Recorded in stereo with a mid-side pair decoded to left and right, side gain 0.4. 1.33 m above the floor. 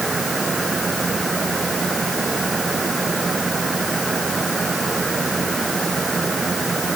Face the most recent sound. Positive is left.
turn(degrees=-35)